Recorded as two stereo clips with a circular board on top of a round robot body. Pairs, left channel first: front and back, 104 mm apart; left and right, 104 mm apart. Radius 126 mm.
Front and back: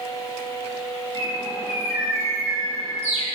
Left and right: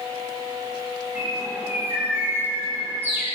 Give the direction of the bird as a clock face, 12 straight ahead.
5 o'clock.